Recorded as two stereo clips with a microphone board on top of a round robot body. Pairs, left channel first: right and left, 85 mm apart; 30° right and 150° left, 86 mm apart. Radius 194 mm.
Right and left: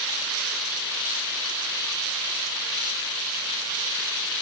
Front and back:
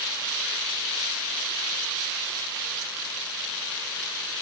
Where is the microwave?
I don't hear a microwave.